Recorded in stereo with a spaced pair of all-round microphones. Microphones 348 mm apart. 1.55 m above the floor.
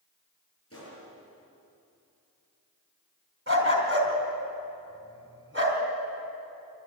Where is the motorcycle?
No motorcycle in this recording.